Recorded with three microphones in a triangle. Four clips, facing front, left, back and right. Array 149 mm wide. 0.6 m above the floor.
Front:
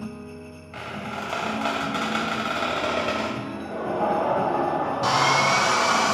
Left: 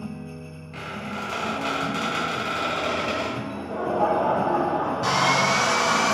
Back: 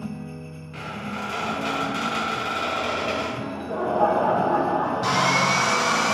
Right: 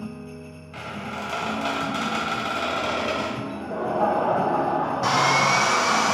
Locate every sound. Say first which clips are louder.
0.7 s a squeak: even, even; 10° right, 1.5 m
3.4 s laughter: even, back 3 dB; 175° left, 0.7 m
5.0 s sawing: right 2 dB, front 4 dB; 35° right, 1.1 m